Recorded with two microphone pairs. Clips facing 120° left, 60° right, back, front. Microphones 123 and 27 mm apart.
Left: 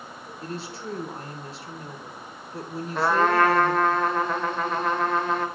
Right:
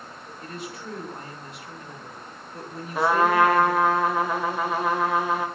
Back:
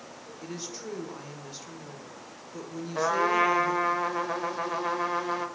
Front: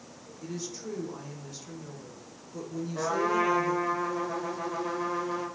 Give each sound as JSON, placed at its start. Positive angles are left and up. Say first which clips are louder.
{"t": 0.4, "sound": "a woman speaking", "louder": "left 3 dB, front 1 dB", "azimuth_deg": 130, "distance_m": 1.1}
{"t": 3.0, "sound": "a trumpet", "louder": "right 1 dB, back 3 dB", "azimuth_deg": -145, "distance_m": 0.8}